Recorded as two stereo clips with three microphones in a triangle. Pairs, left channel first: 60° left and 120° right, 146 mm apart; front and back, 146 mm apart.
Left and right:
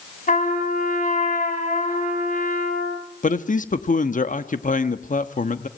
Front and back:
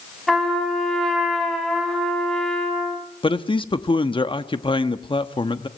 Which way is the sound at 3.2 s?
50° left.